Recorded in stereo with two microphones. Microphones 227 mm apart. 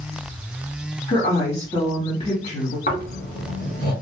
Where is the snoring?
40° left (ahead or behind), 1.3 m.